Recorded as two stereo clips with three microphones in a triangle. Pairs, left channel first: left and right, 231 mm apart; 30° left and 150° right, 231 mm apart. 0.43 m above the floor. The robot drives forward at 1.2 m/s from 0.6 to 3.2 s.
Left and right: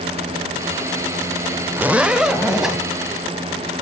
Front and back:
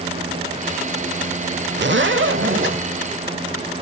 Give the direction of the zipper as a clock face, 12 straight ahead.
6 o'clock.